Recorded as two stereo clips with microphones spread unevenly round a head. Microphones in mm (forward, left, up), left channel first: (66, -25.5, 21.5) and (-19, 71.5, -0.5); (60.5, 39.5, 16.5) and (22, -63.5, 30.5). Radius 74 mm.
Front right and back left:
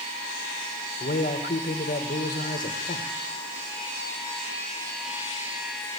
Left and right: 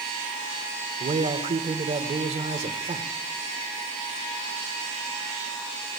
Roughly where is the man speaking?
Right.